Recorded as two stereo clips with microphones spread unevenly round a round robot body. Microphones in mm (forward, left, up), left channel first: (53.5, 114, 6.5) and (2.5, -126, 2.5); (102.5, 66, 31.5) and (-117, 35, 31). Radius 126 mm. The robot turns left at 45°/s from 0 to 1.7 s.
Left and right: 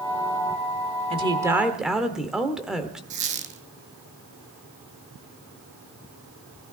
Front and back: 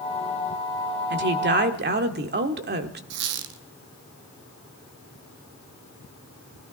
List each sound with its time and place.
1.1 s a woman speaking: 160° right, 1.4 m; by 3.0 s 170° left, 1.4 m
3.1 s a squeak: 165° right, 1.1 m